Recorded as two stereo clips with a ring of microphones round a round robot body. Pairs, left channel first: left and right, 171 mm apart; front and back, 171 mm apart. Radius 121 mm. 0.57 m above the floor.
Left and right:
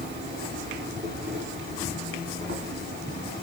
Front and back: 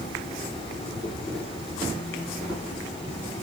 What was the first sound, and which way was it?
An insect, 75° right.